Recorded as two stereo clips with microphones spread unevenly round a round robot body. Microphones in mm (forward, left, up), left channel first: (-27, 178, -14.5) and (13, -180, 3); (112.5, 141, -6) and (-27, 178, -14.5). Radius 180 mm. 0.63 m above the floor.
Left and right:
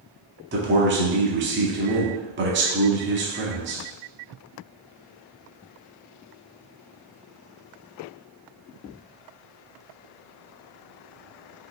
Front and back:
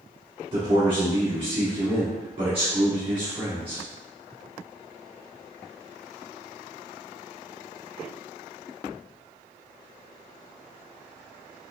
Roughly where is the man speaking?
Behind right.